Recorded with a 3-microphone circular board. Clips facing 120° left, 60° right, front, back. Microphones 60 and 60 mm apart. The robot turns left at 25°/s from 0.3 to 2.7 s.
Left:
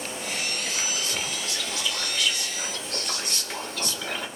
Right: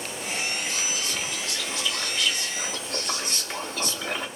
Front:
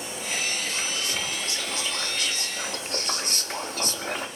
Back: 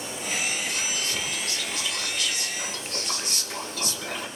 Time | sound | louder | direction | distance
0.7 | whispering | even, even | 65° left | 0.8 m